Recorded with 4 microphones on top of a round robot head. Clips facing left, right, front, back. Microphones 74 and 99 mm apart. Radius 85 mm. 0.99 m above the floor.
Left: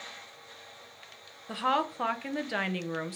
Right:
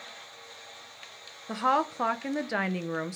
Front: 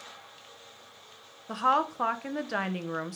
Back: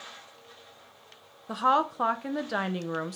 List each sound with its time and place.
1.5 s a woman speaking: 120° right, 0.6 m